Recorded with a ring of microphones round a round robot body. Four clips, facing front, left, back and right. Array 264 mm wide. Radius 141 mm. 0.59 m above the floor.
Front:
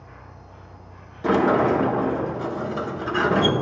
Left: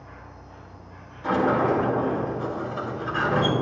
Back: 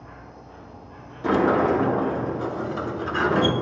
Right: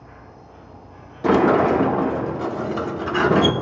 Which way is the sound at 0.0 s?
170° left.